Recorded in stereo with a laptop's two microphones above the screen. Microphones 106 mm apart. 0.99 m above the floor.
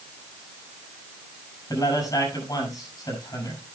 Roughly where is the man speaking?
Left.